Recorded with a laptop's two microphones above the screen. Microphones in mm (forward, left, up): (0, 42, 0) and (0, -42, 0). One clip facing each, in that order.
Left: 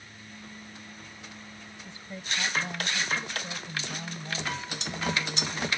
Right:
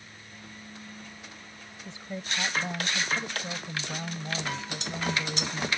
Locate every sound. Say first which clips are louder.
1.9 s a woman speaking: right 2 dB; 20° right (ahead or behind)